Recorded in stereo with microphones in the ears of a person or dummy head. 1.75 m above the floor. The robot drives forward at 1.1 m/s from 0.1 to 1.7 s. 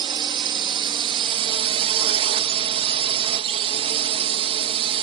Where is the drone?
25° right (ahead or behind); by 5.0 s 35° right (ahead or behind).